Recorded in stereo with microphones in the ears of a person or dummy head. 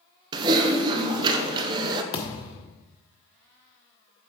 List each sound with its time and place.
0.3 s typing on a keyboard: 25° right (ahead or behind), 0.6 m
2.1 s a thud: 25° left (ahead or behind), 1.3 m